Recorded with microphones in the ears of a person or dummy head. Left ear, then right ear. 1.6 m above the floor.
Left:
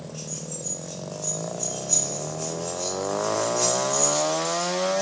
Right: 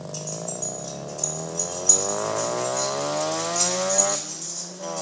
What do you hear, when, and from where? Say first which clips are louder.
0.1 s keys jangling: right 5 dB; 80° right, 4 m; by 5.0 s 55° right (ahead or behind), 5.5 m